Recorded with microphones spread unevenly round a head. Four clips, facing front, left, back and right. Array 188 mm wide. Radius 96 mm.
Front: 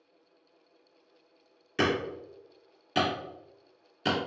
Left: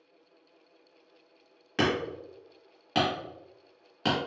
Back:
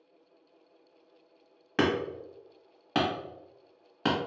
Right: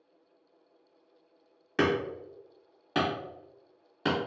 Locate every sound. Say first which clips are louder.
1.8 s hammering: right 1 dB, back 1 dB; straight behind, 1.4 m